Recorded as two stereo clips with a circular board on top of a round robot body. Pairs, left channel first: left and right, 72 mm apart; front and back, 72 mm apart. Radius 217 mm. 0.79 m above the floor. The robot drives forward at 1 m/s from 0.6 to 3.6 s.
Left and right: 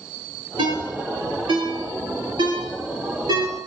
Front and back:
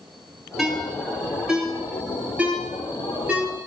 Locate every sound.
0.6 s a ringtone: 90° right, 8.5 m; by 3.5 s 110° right, 9 m